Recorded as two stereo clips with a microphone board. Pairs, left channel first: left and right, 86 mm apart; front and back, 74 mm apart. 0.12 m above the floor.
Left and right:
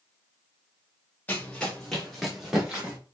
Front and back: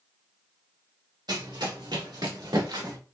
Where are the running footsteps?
160° left, 2.5 m; by 3.0 s 165° right, 3.5 m.